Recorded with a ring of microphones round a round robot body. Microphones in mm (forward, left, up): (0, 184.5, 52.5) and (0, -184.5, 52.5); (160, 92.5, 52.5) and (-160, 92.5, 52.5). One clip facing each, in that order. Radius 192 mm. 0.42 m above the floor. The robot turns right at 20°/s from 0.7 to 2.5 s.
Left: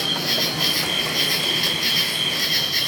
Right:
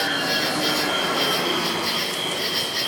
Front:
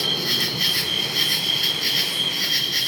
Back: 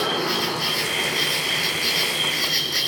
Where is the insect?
35° left, 2.5 m; by 2.9 s 75° left, 2.5 m.